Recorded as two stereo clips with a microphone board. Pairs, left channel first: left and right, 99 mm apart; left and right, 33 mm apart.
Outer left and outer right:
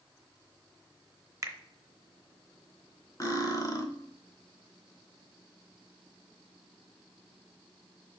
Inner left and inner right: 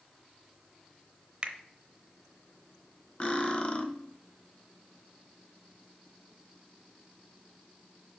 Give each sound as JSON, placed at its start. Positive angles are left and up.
{"t": 1.4, "sound": "a finger snap", "side_deg": -30, "distance_m": 0.7}
{"t": 3.2, "sound": "cutlery clinking", "side_deg": 35, "distance_m": 1.0}